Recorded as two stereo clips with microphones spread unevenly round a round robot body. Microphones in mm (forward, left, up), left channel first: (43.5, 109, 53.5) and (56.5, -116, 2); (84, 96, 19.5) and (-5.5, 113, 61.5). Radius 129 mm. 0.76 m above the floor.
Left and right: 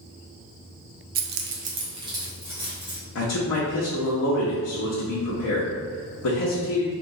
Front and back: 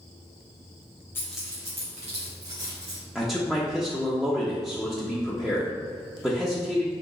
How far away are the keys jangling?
About 0.6 m.